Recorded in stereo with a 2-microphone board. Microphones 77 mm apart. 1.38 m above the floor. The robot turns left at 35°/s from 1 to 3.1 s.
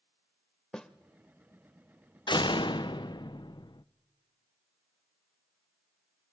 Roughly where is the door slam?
Left.